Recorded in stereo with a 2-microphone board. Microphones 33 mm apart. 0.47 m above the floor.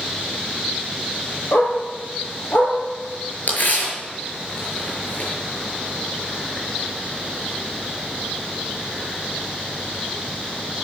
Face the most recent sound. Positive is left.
turn(degrees=55)  # may be behind; listen again after turning